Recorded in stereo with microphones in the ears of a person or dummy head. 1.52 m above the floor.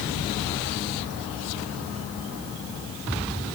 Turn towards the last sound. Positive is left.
No sound to turn to.